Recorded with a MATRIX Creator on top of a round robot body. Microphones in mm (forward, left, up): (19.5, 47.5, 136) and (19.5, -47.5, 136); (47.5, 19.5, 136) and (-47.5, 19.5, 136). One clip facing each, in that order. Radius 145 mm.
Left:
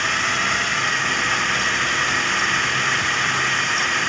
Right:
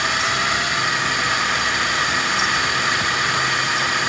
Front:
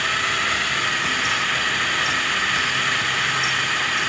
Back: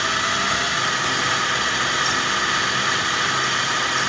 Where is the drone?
155° right.